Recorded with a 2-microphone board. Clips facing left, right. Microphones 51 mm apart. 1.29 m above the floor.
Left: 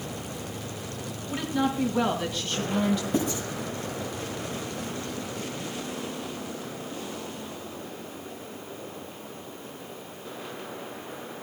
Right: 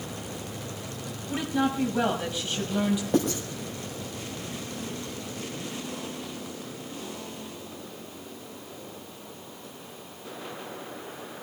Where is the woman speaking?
15° right (ahead or behind), 6.5 m; by 3.0 s 10° right (ahead or behind), 6 m.